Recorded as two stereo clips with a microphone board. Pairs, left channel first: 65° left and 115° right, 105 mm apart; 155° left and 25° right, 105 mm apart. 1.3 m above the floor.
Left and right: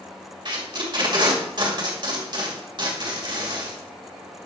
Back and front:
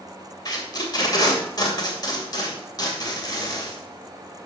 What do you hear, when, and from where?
0.5 s tape being pulled: 155° right, 2.5 m